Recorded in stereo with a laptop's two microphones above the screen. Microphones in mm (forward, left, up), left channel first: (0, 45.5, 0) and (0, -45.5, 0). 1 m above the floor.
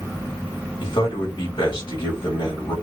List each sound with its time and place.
0.8 s a man speaking: 65° left (ahead or behind), 1.9 m